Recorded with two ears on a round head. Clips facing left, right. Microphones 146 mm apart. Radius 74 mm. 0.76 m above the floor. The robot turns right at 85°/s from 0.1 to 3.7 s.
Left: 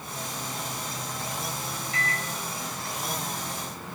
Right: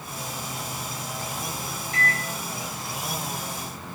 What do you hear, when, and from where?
1.9 s a microwave: 25° right (ahead or behind), 1.9 m; by 2.2 s 55° right (ahead or behind), 1.9 m